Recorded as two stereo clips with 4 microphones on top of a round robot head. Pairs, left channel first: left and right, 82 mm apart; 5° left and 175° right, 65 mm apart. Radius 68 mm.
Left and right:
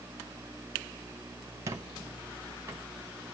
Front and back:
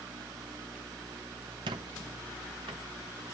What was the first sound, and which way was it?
A squeak, 155° right.